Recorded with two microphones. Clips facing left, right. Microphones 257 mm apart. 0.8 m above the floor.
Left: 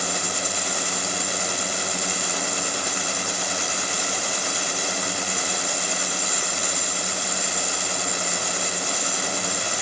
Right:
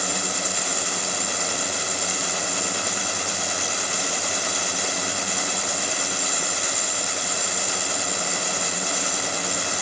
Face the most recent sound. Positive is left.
No sound to turn to.